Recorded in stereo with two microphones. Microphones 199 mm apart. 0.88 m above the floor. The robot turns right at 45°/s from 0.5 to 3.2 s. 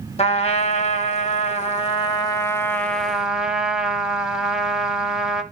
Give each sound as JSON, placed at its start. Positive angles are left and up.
{"t": 0.2, "sound": "a trumpet", "azimuth_deg": 65, "distance_m": 0.8}